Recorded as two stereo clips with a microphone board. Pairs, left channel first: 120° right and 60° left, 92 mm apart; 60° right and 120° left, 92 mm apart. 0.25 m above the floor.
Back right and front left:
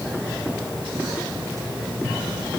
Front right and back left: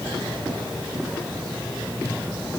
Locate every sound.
Only background noise.